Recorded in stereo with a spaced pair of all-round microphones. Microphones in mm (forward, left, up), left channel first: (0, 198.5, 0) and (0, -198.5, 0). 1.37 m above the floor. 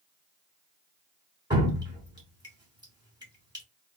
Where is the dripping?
10° right (ahead or behind), 1.2 m.